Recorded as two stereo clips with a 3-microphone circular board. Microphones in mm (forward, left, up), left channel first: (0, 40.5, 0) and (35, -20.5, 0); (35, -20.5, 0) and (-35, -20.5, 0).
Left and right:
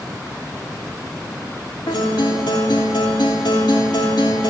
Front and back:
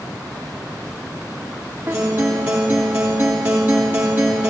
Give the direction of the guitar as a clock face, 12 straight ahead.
8 o'clock.